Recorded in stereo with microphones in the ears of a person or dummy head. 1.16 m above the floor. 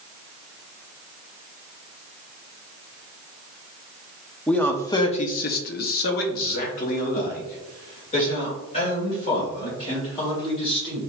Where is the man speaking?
5° left (ahead or behind), 0.6 m; by 11.0 s 35° left (ahead or behind), 3 m.